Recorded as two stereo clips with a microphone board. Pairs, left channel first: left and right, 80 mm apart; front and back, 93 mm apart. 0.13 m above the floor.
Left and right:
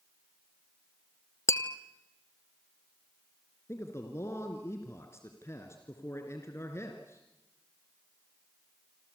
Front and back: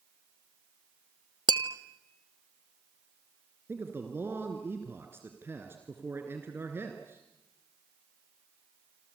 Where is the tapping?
140° left, 0.8 m.